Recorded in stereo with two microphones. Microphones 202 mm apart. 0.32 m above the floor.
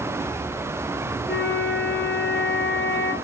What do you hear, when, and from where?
1.3 s a flute: 60° left (ahead or behind), 2.5 m